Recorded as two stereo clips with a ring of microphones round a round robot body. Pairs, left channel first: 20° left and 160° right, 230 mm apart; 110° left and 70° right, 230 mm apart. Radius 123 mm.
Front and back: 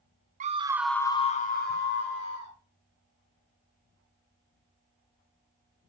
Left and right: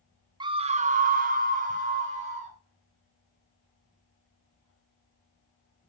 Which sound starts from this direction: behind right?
A scream, at 0.4 s.